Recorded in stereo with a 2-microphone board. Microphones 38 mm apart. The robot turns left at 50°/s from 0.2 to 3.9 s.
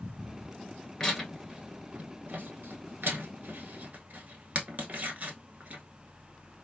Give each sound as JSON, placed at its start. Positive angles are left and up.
{"t": 1.0, "sound": "tearing paper", "side_deg": 15, "distance_m": 1.0}